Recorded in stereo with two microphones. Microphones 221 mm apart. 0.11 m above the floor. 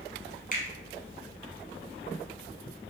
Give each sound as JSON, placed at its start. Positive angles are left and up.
{"t": 0.5, "sound": "a finger snap", "side_deg": 40, "distance_m": 1.3}